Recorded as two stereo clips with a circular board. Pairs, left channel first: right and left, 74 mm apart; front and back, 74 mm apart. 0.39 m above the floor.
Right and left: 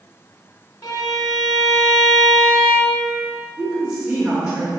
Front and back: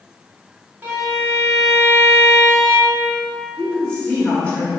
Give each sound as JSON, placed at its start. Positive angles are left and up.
{"t": 0.8, "sound": "a violin", "azimuth_deg": -120, "distance_m": 0.9}
{"t": 3.6, "sound": "a woman speaking", "azimuth_deg": 30, "distance_m": 0.9}